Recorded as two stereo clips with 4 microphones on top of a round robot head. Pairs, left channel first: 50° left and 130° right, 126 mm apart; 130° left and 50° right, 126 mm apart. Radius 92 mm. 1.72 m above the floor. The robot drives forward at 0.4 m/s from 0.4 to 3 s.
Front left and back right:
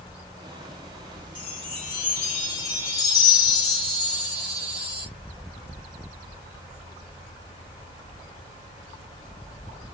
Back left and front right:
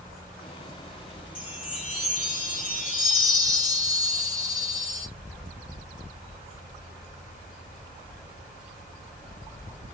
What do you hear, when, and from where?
1.4 s a chime: 100° left, 2.5 m; by 5.1 s 120° left, 2.5 m